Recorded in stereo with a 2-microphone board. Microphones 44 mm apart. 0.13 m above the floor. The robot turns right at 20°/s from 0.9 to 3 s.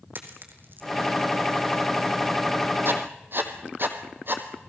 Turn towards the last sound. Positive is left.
turn(degrees=-55)  # may be behind; listen again after turning